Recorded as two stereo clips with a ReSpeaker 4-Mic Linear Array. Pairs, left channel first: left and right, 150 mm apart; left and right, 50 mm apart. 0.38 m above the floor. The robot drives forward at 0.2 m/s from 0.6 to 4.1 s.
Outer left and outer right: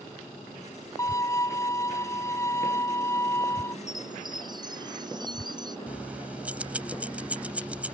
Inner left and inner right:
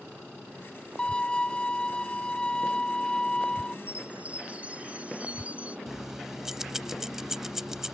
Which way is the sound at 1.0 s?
20° left (ahead or behind).